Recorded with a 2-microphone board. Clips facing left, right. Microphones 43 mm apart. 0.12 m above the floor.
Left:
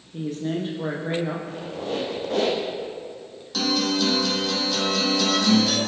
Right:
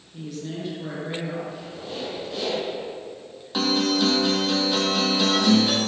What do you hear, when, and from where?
0.1 s a woman speaking: 45° left (ahead or behind), 5.5 m
1.5 s a squeak: 65° left (ahead or behind), 3.5 m
3.5 s a guitar: 25° right (ahead or behind), 3 m